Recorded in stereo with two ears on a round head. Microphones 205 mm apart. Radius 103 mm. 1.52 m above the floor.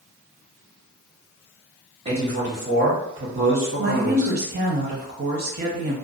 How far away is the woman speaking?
About 0.8 m.